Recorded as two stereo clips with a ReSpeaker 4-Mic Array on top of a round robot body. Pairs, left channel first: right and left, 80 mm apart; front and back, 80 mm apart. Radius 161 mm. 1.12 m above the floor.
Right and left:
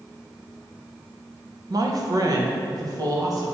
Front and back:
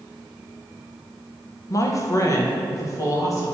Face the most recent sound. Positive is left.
turn(degrees=50)